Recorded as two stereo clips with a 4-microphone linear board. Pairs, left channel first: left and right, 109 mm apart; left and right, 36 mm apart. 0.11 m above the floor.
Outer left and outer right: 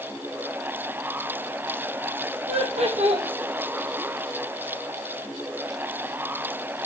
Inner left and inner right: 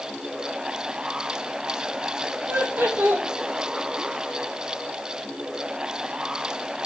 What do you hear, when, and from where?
2.5 s laughter: 70° right (ahead or behind), 3.5 m